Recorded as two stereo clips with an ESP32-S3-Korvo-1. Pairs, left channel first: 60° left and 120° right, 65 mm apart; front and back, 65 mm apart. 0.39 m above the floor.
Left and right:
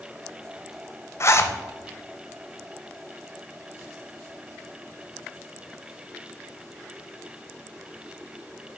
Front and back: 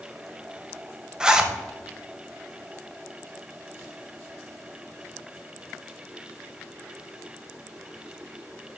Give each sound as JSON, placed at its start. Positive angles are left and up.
{"t": 1.2, "sound": "a zipper", "azimuth_deg": 100, "distance_m": 0.6}